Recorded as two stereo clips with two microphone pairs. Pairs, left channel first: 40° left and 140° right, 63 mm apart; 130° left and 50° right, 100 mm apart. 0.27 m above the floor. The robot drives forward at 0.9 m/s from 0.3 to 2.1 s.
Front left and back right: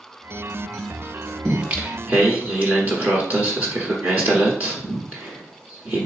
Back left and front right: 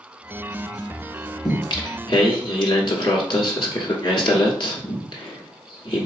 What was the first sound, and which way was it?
Singing, 145° left.